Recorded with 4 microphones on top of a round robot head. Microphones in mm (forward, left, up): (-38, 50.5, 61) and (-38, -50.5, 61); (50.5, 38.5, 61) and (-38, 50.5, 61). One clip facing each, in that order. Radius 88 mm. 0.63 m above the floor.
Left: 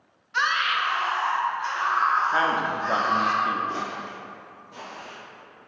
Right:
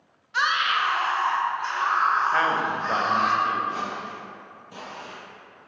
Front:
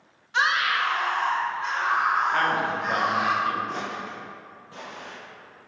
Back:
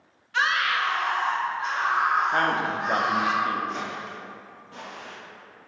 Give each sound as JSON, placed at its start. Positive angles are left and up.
{"t": 0.3, "sound": "a scream", "azimuth_deg": -5, "distance_m": 0.5}
{"t": 2.3, "sound": "a man speaking", "azimuth_deg": 150, "distance_m": 0.6}
{"t": 3.7, "sound": "footsteps", "azimuth_deg": 80, "distance_m": 0.6}